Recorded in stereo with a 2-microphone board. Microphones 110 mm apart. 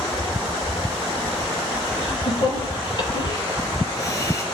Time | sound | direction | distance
2.0 | laughter | 50° left (ahead or behind) | 9 m